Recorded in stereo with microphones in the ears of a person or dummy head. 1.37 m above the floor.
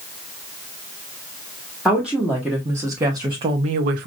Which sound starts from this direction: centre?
A woman speaking, at 1.9 s.